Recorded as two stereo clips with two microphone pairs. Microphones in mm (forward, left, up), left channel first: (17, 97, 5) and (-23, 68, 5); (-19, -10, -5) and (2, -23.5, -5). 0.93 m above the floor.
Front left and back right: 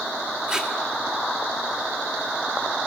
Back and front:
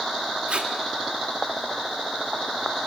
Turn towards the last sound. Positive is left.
turn(degrees=-70)